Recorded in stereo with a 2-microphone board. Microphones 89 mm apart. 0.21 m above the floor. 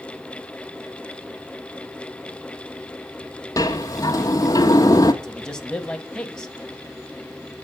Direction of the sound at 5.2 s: 10° left (ahead or behind).